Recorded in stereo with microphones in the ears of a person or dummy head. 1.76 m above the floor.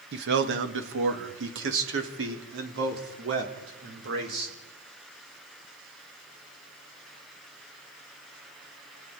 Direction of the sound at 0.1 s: 65° right (ahead or behind).